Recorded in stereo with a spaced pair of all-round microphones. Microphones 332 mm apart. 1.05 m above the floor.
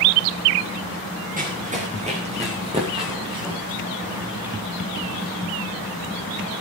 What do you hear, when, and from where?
1.4 s running footsteps: 20° right (ahead or behind), 5 m; by 4.5 s 10° right (ahead or behind), 6.5 m